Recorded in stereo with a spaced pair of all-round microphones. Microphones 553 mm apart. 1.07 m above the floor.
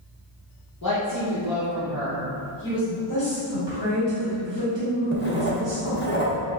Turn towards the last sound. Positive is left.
turn(degrees=20)  # may be behind; listen again after turning